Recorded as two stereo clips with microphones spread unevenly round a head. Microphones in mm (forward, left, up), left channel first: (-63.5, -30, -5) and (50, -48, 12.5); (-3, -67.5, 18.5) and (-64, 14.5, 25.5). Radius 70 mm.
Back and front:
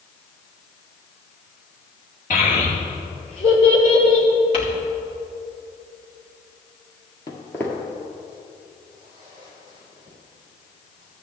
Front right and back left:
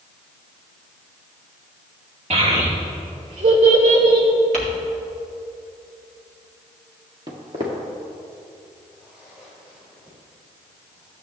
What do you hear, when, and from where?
2.3 s a child speaking: 135° left, 2.5 m; by 4.3 s 115° left, 3 m
4.5 s crumpling: 110° left, 2.0 m
7.3 s footsteps: 120° left, 1.6 m; by 11.2 s 35° left, 5.5 m